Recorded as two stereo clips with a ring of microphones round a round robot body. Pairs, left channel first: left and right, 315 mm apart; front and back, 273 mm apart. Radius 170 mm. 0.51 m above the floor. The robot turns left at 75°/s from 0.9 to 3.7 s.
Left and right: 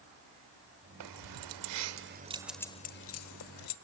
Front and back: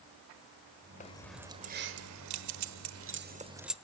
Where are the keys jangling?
65° right, 1.2 m; by 3.8 s 90° left, 1.2 m.